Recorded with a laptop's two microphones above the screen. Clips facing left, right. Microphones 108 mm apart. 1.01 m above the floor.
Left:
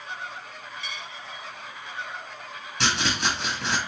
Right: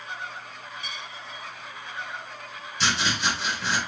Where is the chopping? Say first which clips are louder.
Even; 60° left (ahead or behind), 1.3 m.